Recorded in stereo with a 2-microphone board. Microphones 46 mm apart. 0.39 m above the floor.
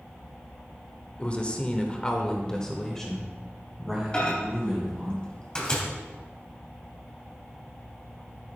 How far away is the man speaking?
About 1.6 m.